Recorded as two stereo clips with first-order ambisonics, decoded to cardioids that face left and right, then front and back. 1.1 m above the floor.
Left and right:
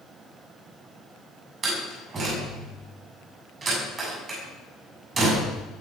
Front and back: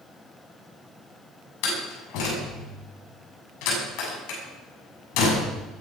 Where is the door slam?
20° right, 8 m.